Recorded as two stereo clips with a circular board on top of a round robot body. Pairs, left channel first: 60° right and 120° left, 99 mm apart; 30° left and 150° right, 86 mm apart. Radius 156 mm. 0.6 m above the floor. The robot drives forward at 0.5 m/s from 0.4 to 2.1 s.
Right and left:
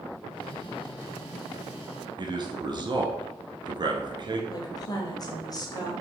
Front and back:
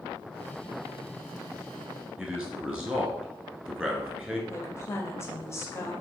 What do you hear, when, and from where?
2.2 s a man speaking: 140° left, 1.3 m
4.5 s a woman speaking: 20° right, 0.9 m